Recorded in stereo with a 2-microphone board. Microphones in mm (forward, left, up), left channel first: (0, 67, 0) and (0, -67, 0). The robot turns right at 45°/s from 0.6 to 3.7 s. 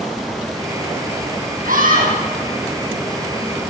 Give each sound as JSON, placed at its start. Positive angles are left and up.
{"t": 1.6, "sound": "a scream", "side_deg": -75, "distance_m": 8.5}